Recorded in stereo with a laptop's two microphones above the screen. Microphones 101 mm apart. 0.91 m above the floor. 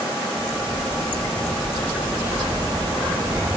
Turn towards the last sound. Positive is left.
turn(degrees=-30)  # may be behind; listen again after turning